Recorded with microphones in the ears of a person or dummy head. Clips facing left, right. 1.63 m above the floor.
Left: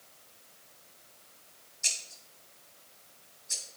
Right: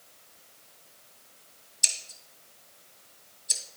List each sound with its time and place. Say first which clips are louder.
1.8 s scissors: right 1 dB; 55° right (ahead or behind), 1.7 m